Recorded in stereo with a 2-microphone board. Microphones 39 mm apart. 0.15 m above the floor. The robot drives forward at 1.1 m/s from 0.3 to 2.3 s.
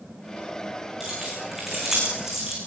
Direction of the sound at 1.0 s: 10° right (ahead or behind).